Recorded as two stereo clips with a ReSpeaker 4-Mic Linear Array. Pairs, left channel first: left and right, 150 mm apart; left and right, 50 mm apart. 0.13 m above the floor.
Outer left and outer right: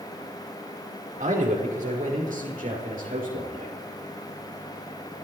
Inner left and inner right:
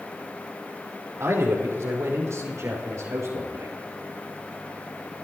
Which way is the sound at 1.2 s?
70° right (ahead or behind).